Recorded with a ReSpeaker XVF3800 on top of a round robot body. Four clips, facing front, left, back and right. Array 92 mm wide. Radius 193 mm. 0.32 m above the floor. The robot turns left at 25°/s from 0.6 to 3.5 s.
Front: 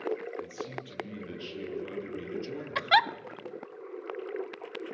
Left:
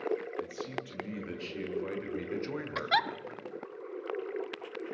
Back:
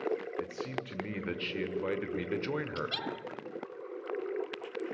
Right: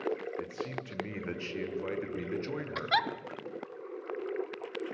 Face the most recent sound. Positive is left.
turn(degrees=-15)